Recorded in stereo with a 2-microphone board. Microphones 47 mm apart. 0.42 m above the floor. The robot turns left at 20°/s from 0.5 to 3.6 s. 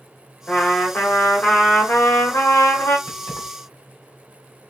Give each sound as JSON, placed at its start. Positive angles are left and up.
{"t": 0.5, "sound": "a trumpet", "azimuth_deg": 150, "distance_m": 2.0}
{"t": 3.1, "sound": "keys jangling", "side_deg": 75, "distance_m": 1.9}